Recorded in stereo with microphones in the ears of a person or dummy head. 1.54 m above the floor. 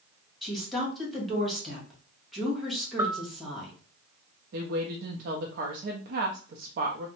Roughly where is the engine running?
I don't hear an engine running.